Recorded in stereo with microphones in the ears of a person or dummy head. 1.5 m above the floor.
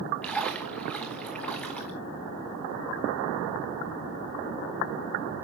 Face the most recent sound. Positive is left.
turn(degrees=5)  # may be behind; listen again after turning